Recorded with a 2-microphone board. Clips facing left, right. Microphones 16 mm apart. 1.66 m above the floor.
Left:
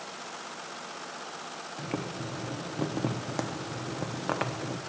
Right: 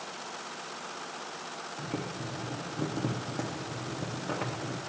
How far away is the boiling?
About 0.7 m.